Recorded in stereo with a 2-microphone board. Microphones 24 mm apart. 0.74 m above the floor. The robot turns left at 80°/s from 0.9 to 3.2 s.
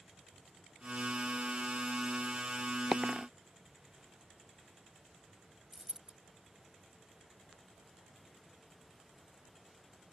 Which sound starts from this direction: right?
A dropped coin, at 5.7 s.